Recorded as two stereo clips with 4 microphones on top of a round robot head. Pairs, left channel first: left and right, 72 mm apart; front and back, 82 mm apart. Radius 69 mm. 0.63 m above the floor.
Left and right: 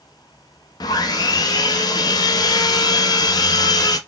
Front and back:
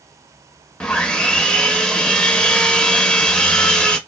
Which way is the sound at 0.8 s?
80° left.